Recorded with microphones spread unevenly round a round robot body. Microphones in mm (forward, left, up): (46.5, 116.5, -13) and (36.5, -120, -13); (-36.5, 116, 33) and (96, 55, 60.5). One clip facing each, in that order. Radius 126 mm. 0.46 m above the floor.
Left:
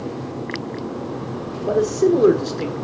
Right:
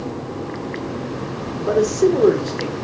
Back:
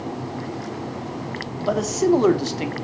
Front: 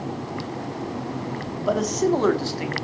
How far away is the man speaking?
About 1.3 m.